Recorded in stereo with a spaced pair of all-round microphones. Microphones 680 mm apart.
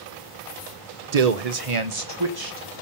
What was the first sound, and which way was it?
A man speaking, 65° right (ahead or behind).